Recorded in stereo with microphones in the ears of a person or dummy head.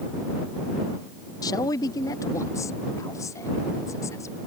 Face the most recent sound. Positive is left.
turn(degrees=20)  # may be behind; listen again after turning